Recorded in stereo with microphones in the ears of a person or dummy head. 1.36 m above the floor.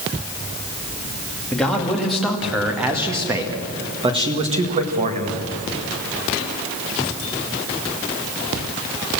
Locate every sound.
1.5 s a man speaking: centre (ahead or behind), 2.5 m; by 5.4 s 45° right (ahead or behind), 1.8 m